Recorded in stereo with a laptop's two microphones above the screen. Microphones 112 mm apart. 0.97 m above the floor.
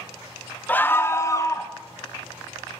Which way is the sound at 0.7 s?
15° left (ahead or behind).